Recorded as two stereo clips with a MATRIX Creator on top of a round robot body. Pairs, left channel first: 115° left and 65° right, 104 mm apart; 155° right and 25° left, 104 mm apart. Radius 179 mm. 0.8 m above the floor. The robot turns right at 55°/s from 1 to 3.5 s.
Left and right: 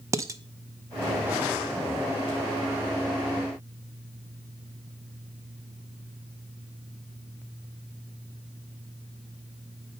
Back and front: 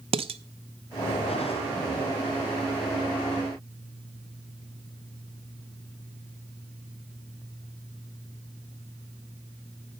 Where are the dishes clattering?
5° right, 0.6 m.